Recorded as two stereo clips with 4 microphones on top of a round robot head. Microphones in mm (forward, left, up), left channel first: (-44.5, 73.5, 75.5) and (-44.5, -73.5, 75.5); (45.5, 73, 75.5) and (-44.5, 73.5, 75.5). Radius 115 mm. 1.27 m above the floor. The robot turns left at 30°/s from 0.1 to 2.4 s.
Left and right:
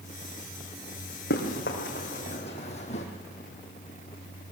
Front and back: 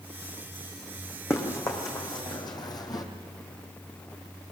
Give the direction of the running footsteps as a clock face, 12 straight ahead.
10 o'clock.